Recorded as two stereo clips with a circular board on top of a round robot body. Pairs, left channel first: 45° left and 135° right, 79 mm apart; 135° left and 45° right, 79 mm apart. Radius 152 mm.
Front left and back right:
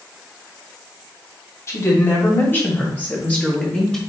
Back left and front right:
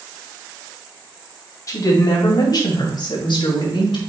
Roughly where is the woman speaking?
Left.